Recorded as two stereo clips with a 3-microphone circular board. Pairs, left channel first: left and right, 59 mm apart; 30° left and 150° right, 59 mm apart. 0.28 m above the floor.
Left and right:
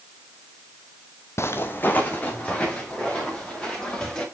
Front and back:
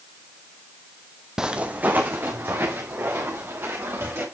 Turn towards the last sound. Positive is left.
turn(degrees=165)